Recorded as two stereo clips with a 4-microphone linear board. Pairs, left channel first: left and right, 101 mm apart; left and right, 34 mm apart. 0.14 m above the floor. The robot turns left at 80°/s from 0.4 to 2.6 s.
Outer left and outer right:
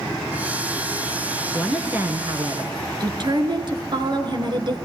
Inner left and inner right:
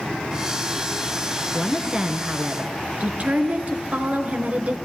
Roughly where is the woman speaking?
Ahead.